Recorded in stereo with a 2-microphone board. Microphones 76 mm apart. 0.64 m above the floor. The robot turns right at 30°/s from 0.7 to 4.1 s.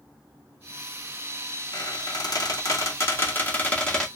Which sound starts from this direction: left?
A squeak, at 1.7 s.